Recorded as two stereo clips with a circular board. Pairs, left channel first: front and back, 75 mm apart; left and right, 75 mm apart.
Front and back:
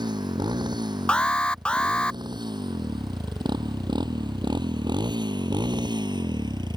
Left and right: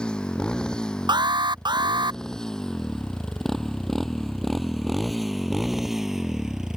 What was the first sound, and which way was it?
A motorcycle, 170° left.